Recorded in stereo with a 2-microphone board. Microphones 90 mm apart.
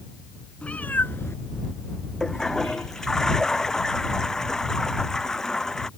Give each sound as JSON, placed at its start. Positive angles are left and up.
{"t": 0.6, "sound": "a cat meowing", "side_deg": 15}
{"t": 2.2, "sound": "a toilet flushing", "side_deg": 5}